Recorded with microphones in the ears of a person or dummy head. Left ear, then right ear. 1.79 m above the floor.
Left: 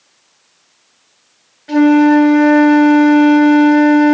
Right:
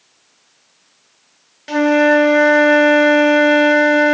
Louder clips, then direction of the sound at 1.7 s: Left 2 dB; 70° right (ahead or behind).